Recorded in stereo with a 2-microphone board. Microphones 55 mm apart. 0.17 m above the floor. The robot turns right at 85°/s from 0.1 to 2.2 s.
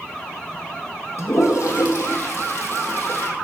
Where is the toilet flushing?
50° left (ahead or behind), 3 m; by 3.3 s 45° left (ahead or behind), 3 m.